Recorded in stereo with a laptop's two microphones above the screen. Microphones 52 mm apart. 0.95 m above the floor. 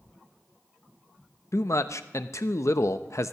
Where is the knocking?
No knocking in this recording.